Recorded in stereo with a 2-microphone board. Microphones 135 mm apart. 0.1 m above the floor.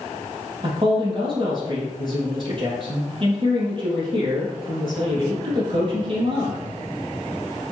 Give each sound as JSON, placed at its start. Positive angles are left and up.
{"t": 0.6, "sound": "a man speaking", "side_deg": -40, "distance_m": 3.0}